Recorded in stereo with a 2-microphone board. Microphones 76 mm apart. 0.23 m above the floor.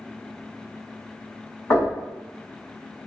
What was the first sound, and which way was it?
Knocking, 40° left (ahead or behind).